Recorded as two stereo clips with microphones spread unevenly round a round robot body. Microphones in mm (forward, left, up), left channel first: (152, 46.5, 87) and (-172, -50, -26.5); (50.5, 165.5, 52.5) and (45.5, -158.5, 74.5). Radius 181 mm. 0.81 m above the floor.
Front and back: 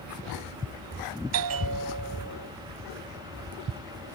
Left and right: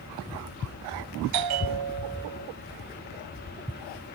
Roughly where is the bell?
Behind right.